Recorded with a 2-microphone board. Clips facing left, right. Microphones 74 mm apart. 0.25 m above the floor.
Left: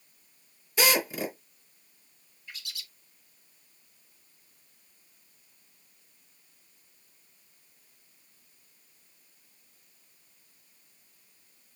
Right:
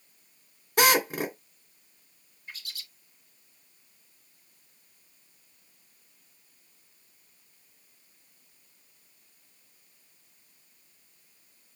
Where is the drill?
60° right (ahead or behind), 2.5 m.